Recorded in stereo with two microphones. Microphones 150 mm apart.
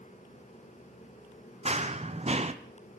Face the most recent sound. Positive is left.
turn(degrees=-45)  # may be behind; listen again after turning